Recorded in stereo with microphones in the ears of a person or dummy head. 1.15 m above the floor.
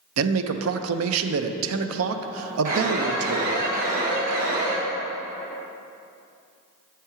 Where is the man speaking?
80° right, 0.5 m.